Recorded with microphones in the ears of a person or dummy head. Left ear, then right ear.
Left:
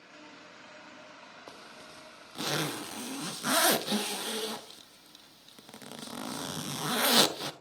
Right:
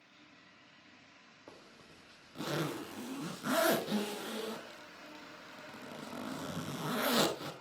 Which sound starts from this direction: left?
A zipper, at 1.5 s.